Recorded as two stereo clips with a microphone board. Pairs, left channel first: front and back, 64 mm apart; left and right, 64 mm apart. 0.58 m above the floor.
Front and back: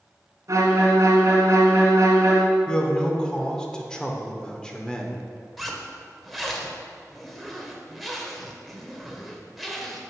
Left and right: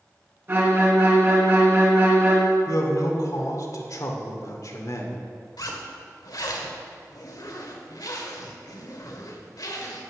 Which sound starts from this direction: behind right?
A violin, at 0.5 s.